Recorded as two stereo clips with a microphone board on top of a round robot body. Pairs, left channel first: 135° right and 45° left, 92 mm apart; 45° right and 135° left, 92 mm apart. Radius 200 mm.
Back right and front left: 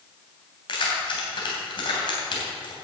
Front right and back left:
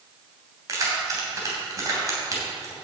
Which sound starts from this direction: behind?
Keys jangling, at 0.7 s.